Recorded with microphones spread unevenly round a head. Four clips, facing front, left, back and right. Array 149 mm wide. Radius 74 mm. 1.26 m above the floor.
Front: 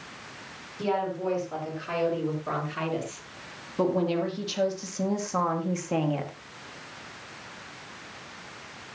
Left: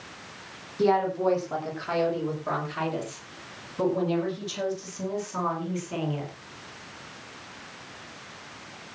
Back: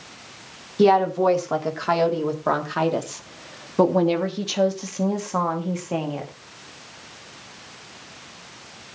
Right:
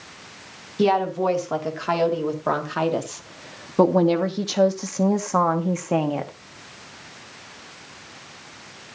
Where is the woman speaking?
155° right, 3.5 m; by 6.3 s 90° right, 2 m.